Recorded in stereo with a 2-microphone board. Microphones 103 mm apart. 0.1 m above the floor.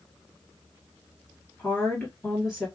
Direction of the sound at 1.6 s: 10° left (ahead or behind).